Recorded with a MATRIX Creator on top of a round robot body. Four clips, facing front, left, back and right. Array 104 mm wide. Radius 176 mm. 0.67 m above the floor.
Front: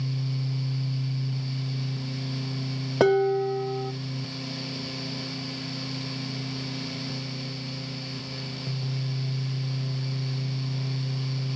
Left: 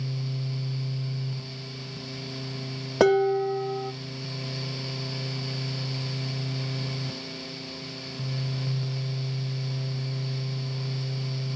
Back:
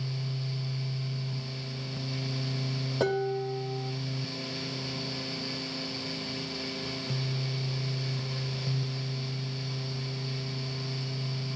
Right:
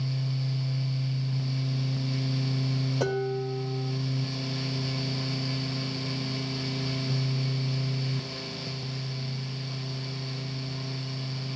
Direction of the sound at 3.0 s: 60° left.